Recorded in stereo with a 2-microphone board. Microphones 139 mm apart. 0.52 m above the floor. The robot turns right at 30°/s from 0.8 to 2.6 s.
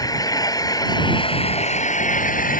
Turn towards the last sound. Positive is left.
turn(degrees=80)